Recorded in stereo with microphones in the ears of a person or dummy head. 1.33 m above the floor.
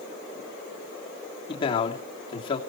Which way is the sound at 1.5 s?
25° left (ahead or behind).